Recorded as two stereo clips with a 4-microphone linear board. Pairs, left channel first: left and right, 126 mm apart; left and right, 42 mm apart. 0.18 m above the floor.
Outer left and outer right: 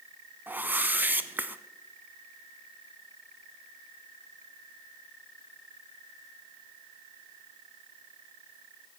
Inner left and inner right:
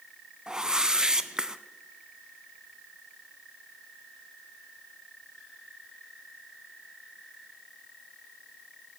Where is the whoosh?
15° right (ahead or behind), 0.5 m.